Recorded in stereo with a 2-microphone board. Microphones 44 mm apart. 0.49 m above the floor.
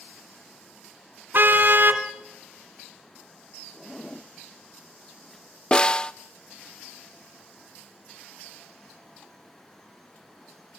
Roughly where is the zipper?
Centre.